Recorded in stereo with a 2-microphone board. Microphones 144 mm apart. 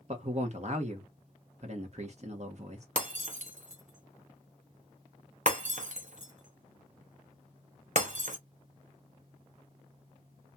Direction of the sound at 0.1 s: 50° right (ahead or behind).